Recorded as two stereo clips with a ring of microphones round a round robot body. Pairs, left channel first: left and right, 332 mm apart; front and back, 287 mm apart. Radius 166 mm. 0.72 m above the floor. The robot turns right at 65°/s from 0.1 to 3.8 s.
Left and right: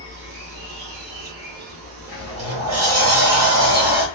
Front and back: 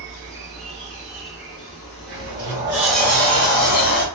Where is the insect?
160° right, 0.7 m; by 4.2 s 80° left, 0.7 m.